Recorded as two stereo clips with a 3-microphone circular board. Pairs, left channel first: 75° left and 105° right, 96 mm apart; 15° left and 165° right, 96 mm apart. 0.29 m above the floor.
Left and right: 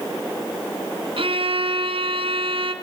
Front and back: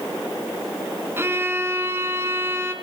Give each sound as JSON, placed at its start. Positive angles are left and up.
{"t": 1.2, "sound": "a violin", "azimuth_deg": -100, "distance_m": 2.5}